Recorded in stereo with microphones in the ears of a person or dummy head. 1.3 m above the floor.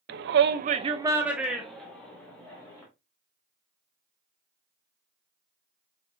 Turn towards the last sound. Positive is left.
turn(degrees=15)  # may be behind; listen again after turning